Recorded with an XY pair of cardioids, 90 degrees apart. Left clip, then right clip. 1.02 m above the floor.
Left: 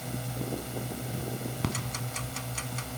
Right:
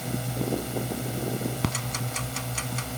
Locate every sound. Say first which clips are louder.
0.0 s a drone: right 5 dB; 35° right
1.6 s ticking: right 4 dB; 35° right